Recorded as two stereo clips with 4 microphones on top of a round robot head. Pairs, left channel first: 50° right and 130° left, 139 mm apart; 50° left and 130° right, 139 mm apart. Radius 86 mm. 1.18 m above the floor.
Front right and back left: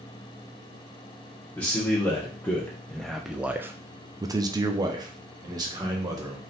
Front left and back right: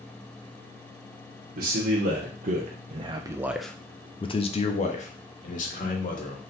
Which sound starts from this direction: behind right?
A man speaking, at 1.6 s.